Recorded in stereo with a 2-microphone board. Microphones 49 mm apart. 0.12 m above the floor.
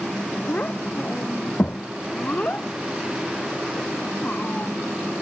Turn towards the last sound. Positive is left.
turn(degrees=30)  # may be behind; listen again after turning